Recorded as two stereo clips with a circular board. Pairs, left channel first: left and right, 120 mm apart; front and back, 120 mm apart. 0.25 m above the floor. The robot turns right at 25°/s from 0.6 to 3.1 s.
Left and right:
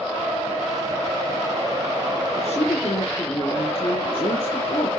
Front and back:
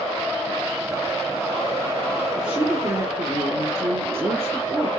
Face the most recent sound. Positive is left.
turn(degrees=115)